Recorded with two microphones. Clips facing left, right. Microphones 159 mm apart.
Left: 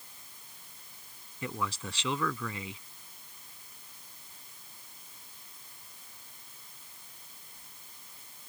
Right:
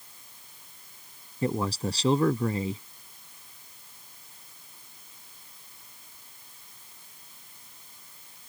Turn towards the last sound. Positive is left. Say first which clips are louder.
# right 8 dB
turn(degrees=-40)  # may be behind; listen again after turning